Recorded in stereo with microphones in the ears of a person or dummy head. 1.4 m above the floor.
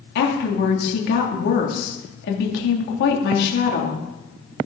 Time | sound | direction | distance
0.1 | a woman speaking | 55° left (ahead or behind) | 2.5 m